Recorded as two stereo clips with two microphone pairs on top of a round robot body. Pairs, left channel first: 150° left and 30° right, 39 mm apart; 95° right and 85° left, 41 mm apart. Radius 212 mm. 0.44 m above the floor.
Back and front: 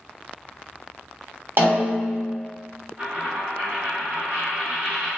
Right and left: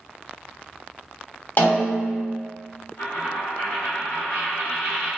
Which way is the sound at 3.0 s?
90° right.